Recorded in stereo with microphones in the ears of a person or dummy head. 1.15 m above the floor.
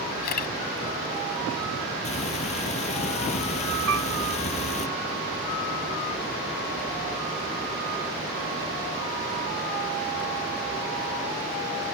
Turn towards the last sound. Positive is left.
turn(degrees=-90)